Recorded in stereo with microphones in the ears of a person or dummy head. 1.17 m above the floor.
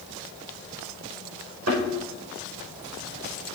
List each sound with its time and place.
1.7 s a thud: 80° right, 6.5 m